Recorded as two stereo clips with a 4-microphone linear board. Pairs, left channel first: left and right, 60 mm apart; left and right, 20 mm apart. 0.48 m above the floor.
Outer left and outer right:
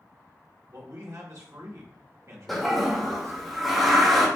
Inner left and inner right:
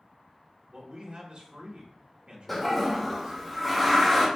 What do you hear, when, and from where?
0.7 s a man speaking: 60° right (ahead or behind), 1.3 m
2.5 s a toilet flushing: centre (ahead or behind), 1.4 m